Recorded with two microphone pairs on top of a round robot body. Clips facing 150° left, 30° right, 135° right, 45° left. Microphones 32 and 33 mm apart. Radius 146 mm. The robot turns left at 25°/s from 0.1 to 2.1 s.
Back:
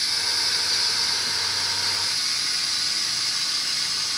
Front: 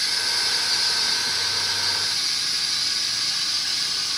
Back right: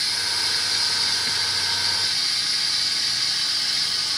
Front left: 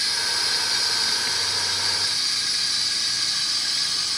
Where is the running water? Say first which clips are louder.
Front 1 dB, even; 75° right, 1.5 m; by 4.2 s 125° right, 1.5 m.